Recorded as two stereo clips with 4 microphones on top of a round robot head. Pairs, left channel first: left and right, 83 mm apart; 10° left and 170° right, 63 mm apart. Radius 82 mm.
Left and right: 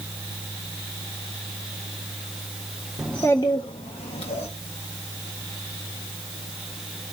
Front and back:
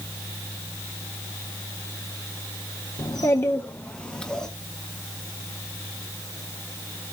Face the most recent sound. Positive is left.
turn(degrees=90)